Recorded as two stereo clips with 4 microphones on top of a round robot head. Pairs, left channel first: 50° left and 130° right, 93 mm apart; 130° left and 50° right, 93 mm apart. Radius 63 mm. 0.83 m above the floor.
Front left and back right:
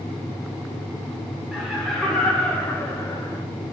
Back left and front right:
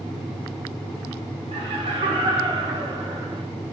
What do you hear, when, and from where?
1.5 s laughter: 45° right, 3 m; by 3.4 s 10° right, 3 m